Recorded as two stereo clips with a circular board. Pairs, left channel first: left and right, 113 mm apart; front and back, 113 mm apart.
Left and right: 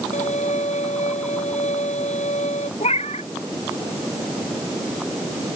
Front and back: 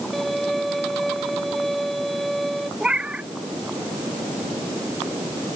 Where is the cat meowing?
100° left.